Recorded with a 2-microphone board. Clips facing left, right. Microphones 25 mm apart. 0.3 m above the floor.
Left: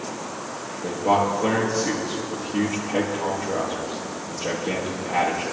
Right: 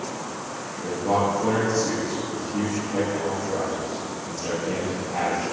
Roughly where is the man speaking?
Left.